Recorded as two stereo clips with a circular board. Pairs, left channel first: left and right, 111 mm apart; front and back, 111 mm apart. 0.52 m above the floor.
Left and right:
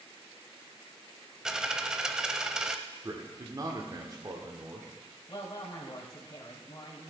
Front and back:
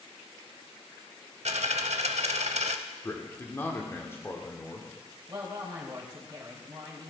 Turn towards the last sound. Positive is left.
turn(degrees=140)